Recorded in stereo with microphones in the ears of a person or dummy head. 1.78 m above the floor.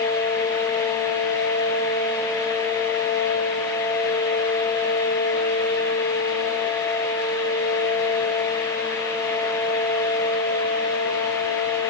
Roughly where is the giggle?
I don't hear a giggle.